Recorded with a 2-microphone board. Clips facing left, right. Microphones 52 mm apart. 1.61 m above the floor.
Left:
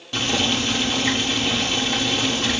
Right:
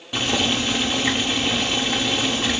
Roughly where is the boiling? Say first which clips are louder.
Even; centre.